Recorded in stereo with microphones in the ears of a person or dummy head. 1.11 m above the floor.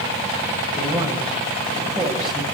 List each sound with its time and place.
0.7 s a man speaking: 30° right (ahead or behind), 7 m; by 2.4 s 15° right (ahead or behind), 7.5 m